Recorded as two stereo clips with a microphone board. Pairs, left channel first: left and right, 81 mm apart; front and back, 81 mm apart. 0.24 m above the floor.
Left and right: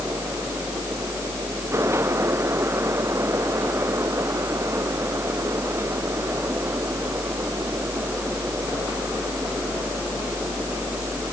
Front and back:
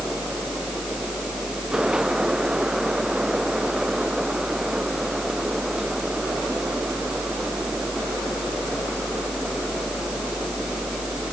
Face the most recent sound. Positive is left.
No sound to turn to.